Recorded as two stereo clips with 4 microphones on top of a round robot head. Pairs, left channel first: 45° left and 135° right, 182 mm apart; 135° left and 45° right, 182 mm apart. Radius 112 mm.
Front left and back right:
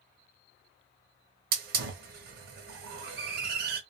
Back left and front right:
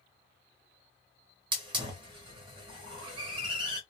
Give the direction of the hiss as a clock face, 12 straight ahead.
4 o'clock.